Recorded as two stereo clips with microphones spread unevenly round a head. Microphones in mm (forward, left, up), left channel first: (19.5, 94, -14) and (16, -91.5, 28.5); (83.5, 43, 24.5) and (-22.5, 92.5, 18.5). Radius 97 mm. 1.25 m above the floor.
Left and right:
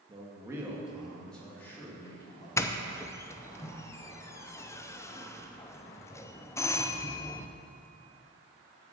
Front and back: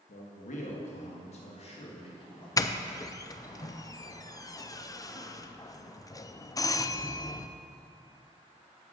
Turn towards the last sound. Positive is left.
turn(degrees=30)